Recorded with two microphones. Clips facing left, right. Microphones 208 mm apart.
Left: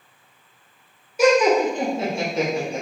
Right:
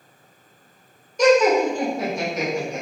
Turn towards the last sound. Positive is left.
turn(degrees=35)  # may be behind; listen again after turning